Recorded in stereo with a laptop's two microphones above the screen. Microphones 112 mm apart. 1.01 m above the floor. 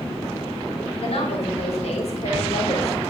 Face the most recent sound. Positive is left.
turn(degrees=80)